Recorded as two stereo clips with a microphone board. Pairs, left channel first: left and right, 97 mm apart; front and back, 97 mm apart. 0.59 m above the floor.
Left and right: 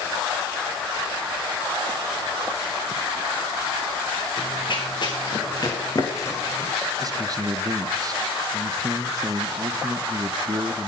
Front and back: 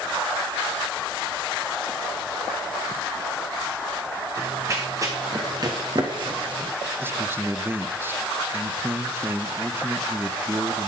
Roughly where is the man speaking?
Behind right.